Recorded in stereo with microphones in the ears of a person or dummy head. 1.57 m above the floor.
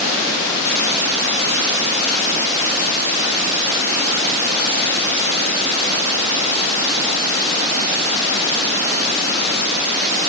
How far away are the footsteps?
No footsteps in this recording.